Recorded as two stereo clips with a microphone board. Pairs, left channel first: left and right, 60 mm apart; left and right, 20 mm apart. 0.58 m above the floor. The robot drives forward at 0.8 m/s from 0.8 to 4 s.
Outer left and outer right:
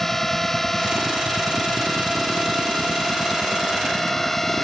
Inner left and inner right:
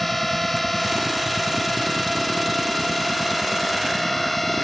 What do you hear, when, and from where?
0.0 s a drone: 5° left (ahead or behind)